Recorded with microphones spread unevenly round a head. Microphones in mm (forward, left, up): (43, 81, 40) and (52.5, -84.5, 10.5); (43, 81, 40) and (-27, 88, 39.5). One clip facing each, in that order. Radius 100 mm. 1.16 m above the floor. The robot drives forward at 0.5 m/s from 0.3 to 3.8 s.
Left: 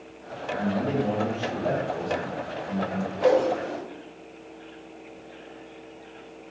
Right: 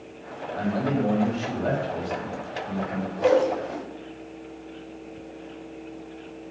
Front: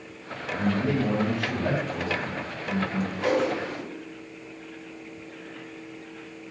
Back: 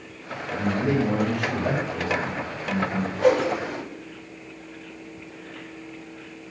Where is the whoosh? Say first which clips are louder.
Right 1 dB, back 5 dB; straight behind, 2.0 m.